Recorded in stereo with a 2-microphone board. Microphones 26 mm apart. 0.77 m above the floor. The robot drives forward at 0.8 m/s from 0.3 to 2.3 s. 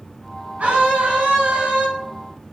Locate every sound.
0.6 s a scream: 60° right (ahead or behind), 6 m; by 1.9 s 65° right (ahead or behind), 5.5 m